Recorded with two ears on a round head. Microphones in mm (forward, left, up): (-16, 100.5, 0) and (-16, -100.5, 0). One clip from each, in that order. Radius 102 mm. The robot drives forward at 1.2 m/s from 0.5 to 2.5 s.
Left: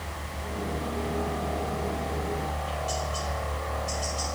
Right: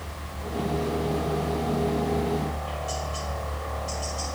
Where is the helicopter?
10° left (ahead or behind).